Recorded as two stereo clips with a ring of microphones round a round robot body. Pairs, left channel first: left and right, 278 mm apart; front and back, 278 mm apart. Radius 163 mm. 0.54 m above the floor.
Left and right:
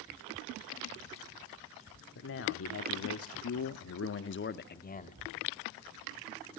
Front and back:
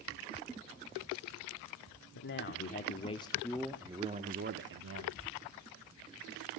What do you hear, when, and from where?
2.1 s a man speaking: 45° left, 1.3 m; by 5.2 s 155° left, 1.2 m